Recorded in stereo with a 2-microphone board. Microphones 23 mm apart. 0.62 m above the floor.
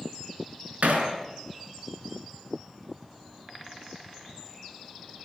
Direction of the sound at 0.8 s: 85° right.